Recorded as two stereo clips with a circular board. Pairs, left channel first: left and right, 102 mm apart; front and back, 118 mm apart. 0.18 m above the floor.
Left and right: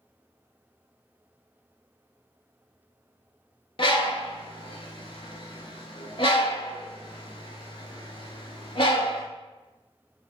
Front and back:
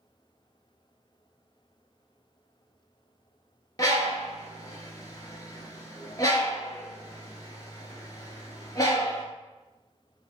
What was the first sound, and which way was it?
A bird, 55° left.